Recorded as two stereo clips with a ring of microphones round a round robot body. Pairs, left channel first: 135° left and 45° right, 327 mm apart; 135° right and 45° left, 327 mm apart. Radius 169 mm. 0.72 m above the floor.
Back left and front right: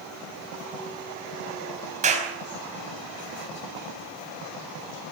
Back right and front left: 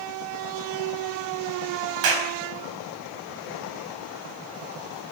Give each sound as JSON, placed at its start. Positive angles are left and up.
{"t": 2.0, "sound": "a clap", "azimuth_deg": 25, "distance_m": 4.5}